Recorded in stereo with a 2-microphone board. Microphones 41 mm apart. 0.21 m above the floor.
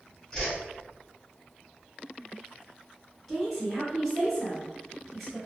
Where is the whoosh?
15° left (ahead or behind), 1.7 m.